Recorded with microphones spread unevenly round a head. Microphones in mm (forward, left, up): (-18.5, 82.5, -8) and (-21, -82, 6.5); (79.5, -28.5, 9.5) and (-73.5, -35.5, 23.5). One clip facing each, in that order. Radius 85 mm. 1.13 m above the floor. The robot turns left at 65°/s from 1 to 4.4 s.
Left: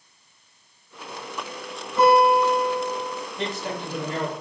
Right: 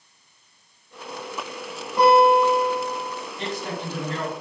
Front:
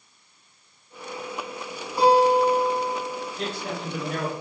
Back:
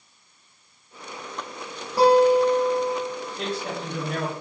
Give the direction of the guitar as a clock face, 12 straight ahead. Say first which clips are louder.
Right 1 dB, back 2 dB; 5 o'clock.